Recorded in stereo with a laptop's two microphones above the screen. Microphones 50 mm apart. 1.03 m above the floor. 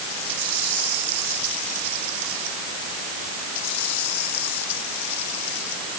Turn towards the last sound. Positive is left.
No sound to turn to.